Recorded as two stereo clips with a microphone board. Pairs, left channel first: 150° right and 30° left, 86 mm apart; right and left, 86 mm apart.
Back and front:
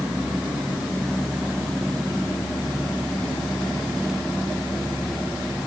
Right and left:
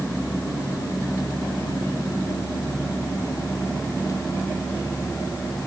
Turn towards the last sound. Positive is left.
No sound to turn to.